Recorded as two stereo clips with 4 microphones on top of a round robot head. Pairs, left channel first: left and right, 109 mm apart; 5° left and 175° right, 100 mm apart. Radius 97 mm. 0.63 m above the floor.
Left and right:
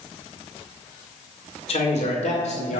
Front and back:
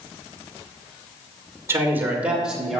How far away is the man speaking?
About 2.5 m.